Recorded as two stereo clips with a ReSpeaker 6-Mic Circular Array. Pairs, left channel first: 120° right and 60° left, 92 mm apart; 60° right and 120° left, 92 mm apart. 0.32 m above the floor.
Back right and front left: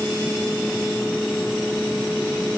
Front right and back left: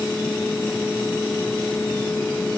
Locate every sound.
Only background noise.